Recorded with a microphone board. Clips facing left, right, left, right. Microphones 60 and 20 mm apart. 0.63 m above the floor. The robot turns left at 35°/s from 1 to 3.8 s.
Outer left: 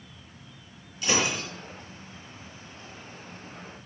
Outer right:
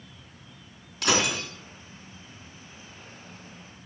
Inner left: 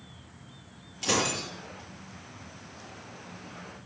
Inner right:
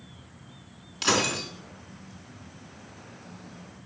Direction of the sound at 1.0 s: 70° right (ahead or behind).